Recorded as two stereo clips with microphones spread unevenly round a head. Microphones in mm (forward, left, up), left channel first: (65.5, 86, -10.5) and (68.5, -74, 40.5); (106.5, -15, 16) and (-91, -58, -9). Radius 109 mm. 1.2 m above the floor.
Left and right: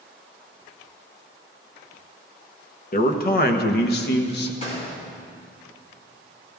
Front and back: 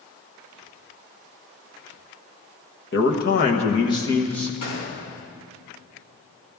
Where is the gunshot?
40° left, 3.5 m.